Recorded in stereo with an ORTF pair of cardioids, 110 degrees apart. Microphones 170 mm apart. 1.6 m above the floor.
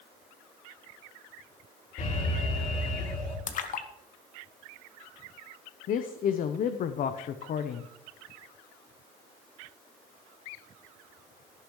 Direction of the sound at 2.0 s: 55° left.